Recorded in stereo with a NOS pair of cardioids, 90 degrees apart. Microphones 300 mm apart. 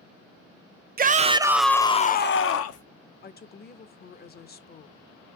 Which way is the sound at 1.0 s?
30° right.